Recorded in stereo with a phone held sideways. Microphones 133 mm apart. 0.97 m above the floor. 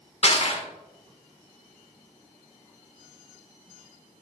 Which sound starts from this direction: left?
Crushing, at 0.2 s.